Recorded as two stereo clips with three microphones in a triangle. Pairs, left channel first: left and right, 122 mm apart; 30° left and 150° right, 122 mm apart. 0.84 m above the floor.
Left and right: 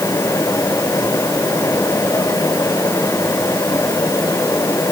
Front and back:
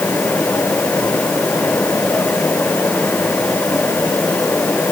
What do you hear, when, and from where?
Only background noise.